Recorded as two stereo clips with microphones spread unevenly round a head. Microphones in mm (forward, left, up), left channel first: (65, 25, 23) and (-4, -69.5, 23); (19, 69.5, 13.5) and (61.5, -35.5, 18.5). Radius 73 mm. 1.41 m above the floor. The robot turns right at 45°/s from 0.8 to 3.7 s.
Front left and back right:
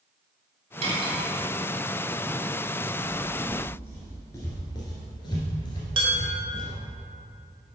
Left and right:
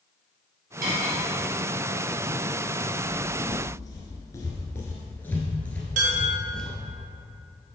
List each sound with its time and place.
0.8 s cutlery clinking: 95° right, 2 m; by 1.2 s 80° right, 2 m
3.0 s footsteps: 105° left, 1.6 m; by 6.7 s 25° left, 2 m
6.0 s dishes clattering: 85° right, 1.4 m